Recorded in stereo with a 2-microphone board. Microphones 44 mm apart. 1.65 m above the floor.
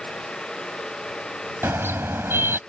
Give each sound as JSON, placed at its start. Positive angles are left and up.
{"t": 1.6, "sound": "a car horn", "side_deg": -60}